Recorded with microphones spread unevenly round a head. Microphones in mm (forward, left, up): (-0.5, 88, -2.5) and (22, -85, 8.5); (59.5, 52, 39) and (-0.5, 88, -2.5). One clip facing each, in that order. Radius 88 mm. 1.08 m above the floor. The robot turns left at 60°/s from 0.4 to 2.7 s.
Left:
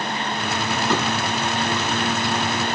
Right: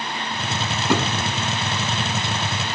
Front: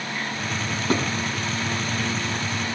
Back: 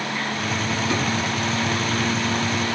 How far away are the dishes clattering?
About 6.5 m.